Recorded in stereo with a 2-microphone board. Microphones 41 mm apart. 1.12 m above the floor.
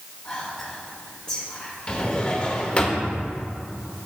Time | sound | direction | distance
0.2 | whispering | 30° left (ahead or behind) | 1.5 m
1.9 | a drawer | 30° left (ahead or behind) | 1.2 m